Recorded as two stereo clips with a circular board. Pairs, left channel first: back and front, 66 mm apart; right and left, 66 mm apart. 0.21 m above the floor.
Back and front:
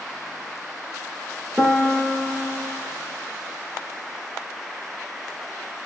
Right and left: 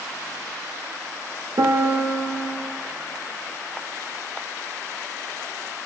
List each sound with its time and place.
1.6 s a piano: 90° left, 0.6 m